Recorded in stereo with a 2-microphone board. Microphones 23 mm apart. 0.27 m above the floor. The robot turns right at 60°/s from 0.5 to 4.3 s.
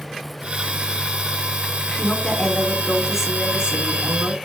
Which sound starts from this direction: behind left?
A woman speaking, at 2.0 s.